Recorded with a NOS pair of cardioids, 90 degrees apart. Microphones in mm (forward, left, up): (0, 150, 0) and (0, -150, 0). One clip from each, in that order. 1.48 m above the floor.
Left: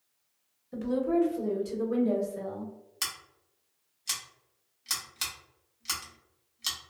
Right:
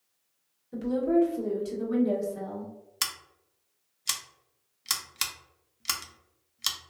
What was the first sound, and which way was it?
A woman speaking, 5° left.